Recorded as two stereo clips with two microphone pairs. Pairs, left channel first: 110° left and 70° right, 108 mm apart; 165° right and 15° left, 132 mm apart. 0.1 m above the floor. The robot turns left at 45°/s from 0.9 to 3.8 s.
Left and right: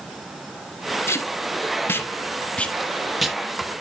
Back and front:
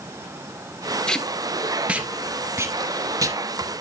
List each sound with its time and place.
1.1 s tape being pulled: 120° left, 0.7 m; by 3.4 s 15° left, 0.7 m